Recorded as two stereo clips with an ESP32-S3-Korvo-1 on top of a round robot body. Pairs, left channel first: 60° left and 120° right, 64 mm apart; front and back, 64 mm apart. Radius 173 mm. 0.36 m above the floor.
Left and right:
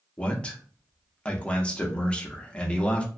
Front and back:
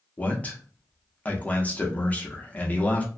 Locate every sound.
0.2 s a man speaking: 15° left, 0.9 m